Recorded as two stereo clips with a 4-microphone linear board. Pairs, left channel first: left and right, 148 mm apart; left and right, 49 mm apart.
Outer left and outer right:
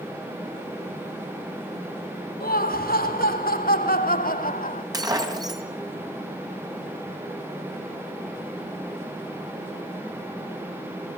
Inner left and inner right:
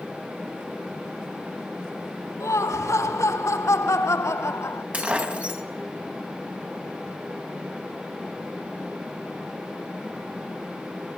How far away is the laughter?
About 4 m.